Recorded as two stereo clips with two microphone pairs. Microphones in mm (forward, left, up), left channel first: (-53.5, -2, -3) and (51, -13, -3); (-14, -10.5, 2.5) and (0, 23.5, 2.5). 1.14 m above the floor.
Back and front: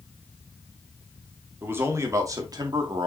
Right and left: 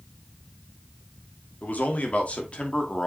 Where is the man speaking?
75° right, 2.5 m; by 3.1 s 40° right, 2 m.